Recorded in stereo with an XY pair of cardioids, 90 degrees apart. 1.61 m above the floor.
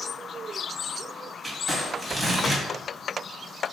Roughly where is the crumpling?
Ahead.